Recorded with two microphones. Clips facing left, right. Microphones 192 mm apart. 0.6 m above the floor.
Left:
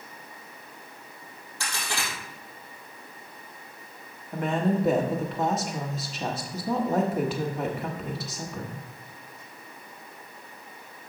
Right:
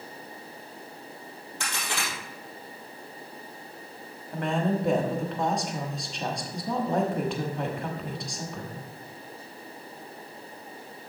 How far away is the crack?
About 3.5 m.